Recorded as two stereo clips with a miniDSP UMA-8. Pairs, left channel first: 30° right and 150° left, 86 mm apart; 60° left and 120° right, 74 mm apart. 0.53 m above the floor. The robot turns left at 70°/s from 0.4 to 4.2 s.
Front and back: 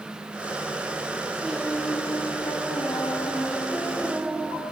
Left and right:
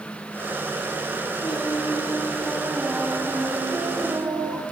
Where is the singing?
60° left, 2.5 m; by 4.6 s 135° right, 2.5 m.